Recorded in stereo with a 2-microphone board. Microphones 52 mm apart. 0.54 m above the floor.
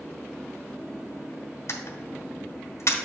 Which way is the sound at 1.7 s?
65° left (ahead or behind).